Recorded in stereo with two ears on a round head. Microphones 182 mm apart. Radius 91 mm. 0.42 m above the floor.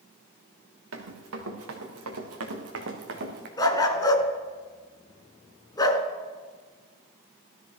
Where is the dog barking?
20° left (ahead or behind), 1.2 m.